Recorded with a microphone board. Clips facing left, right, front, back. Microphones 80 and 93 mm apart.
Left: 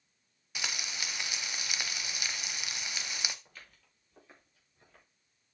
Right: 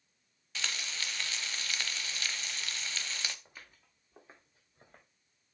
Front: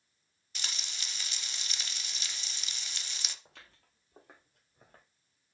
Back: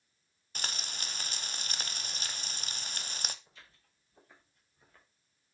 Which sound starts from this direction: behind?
Frying, at 0.6 s.